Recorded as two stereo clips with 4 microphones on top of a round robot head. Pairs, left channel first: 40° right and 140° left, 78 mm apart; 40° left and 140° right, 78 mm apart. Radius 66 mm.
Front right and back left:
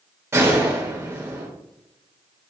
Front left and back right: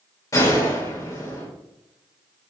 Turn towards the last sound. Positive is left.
turn(degrees=85)